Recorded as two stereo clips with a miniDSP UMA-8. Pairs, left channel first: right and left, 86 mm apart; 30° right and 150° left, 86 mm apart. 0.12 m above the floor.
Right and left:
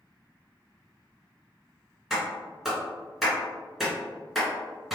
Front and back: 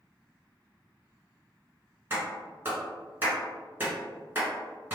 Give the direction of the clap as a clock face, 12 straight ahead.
6 o'clock.